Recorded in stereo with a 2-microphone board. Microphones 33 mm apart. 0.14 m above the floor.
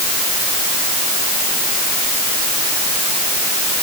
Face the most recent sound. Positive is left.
No sound to turn to.